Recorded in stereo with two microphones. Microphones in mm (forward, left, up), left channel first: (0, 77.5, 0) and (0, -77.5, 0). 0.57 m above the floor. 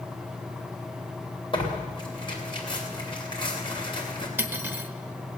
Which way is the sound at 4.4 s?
15° right (ahead or behind).